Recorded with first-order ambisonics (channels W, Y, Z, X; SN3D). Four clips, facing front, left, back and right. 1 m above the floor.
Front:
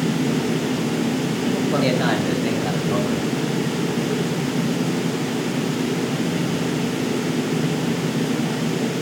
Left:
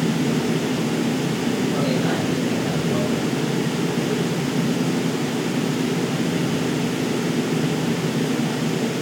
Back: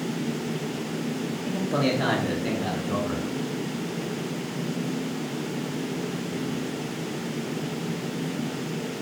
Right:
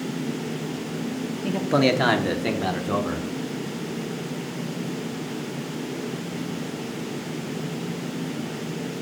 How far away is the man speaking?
About 1.6 m.